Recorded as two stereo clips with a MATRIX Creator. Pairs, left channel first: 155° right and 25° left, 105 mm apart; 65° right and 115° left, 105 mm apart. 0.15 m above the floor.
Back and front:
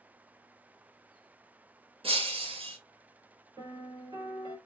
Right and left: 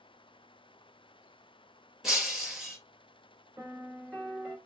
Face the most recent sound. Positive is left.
turn(degrees=40)